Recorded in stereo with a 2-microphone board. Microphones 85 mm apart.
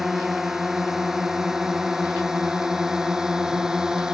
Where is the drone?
5° right (ahead or behind).